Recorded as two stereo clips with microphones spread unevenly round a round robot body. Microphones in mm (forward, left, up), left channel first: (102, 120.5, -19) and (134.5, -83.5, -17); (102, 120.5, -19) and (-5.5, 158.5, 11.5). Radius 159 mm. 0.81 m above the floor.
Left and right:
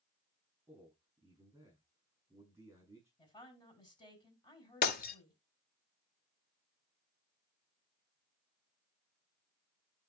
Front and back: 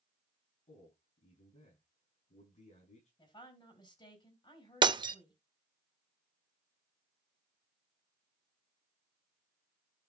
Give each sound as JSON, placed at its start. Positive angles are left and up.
{"t": 0.7, "sound": "a man speaking", "azimuth_deg": -5, "distance_m": 7.0}
{"t": 3.2, "sound": "a woman speaking", "azimuth_deg": 30, "distance_m": 5.5}
{"t": 4.8, "sound": "breaking glass", "azimuth_deg": 140, "distance_m": 0.7}